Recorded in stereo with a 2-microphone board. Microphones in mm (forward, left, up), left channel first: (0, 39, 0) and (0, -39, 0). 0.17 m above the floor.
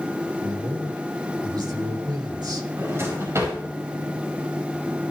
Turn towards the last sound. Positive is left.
turn(degrees=-40)  # may be behind; listen again after turning